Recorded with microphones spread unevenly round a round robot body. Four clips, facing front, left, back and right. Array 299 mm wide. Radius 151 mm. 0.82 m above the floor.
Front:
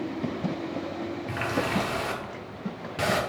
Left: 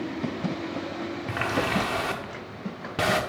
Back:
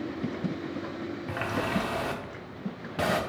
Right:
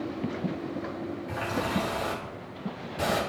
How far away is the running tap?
About 1.3 m.